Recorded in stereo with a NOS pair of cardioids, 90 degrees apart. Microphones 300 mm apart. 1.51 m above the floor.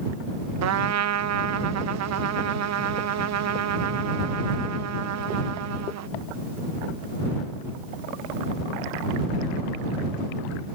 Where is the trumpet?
55° right.